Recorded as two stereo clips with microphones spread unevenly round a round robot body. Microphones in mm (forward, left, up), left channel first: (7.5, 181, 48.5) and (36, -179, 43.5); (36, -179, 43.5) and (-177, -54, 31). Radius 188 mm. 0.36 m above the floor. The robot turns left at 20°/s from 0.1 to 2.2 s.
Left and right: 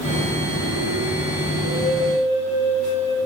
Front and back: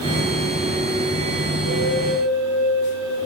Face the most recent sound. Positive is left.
turn(degrees=20)